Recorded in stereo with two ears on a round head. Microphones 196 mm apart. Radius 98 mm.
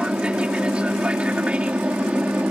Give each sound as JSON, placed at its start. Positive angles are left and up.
{"t": 0.0, "sound": "an aircraft", "side_deg": -5}